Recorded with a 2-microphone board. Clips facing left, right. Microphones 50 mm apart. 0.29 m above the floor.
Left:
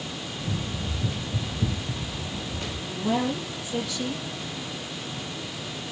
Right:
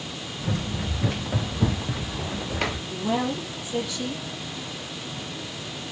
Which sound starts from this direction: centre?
A woman speaking, at 2.9 s.